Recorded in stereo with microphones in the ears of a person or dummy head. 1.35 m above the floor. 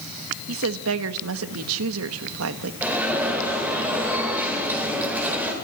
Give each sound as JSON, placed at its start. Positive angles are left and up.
{"t": 0.5, "sound": "a woman speaking", "side_deg": -80, "distance_m": 1.5}
{"t": 2.8, "sound": "an alarm", "side_deg": -10, "distance_m": 8.0}